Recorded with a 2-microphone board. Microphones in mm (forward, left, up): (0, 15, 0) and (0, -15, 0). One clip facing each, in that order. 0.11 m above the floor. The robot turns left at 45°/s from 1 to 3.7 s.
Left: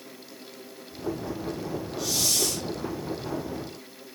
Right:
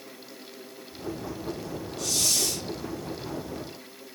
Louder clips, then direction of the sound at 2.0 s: Even; 20° left.